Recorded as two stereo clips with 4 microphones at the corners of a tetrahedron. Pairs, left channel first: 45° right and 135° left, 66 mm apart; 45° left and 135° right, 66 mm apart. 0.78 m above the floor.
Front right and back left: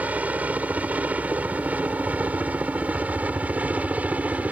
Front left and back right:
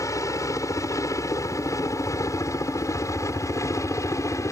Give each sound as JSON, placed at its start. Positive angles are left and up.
{"t": 0.0, "sound": "a helicopter", "azimuth_deg": 70}